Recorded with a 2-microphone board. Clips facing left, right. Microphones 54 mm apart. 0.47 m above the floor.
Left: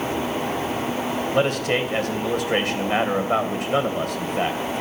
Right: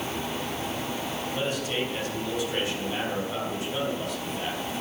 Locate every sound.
1.3 s a man speaking: 60° left (ahead or behind), 2.5 m